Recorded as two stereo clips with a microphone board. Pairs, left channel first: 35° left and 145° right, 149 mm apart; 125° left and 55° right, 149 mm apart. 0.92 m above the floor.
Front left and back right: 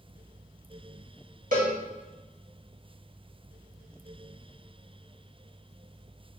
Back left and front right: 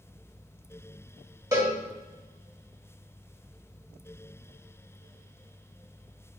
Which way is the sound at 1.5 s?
125° right.